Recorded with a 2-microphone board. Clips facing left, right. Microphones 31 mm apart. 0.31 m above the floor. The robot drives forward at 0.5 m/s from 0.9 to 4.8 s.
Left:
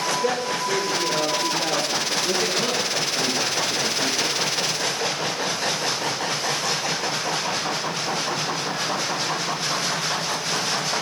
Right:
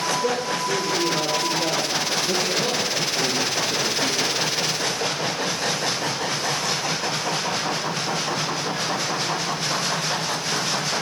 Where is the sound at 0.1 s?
40° left (ahead or behind), 5 m; by 2.1 s 45° left (ahead or behind), 4.5 m.